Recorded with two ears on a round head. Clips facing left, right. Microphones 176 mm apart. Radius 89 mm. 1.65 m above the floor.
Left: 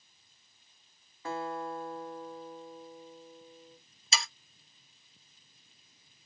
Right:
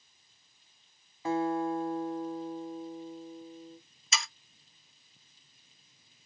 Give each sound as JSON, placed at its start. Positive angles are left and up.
{"t": 1.2, "sound": "a guitar", "side_deg": -15, "distance_m": 1.7}
{"t": 4.1, "sound": "sawing", "side_deg": 30, "distance_m": 1.1}